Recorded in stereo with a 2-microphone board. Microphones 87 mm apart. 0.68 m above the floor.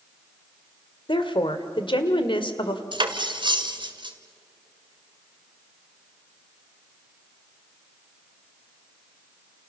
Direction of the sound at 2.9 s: 70° right (ahead or behind).